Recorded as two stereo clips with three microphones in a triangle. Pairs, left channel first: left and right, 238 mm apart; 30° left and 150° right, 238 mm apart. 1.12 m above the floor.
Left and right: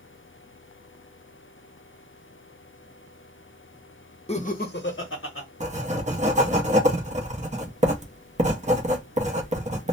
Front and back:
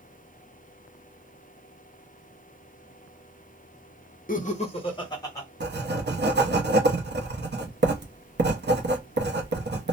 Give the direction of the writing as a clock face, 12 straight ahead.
5 o'clock.